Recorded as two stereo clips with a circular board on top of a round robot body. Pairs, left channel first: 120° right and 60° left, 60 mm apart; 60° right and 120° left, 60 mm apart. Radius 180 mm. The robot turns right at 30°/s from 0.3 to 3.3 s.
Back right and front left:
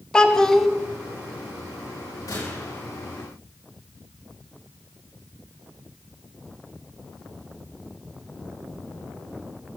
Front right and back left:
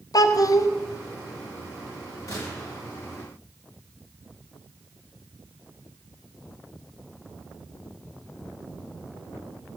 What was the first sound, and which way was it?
A child speaking, 40° right.